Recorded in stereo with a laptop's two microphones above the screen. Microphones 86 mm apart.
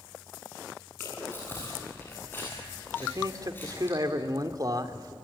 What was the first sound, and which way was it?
Chewing, 25° left (ahead or behind).